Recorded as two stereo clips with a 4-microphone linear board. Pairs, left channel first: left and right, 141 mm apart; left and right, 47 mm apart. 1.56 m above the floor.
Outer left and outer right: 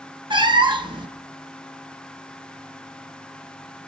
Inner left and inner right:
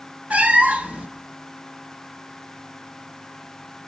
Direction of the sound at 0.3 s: 35° right (ahead or behind).